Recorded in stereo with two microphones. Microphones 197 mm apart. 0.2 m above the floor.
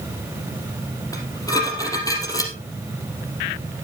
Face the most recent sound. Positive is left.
turn(degrees=15)  # may be behind; listen again after turning